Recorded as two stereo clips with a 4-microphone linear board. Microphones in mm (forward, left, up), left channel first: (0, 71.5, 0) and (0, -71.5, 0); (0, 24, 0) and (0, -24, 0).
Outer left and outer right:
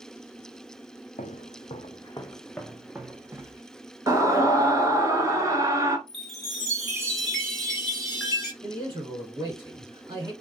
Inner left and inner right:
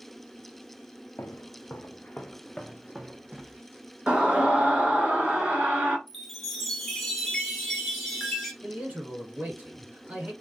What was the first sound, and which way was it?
Footsteps, 60° left (ahead or behind).